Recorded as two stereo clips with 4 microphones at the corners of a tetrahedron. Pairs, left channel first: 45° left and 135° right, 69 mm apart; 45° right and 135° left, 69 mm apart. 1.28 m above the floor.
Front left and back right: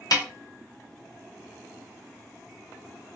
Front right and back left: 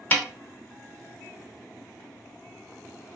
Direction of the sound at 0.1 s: 20° left.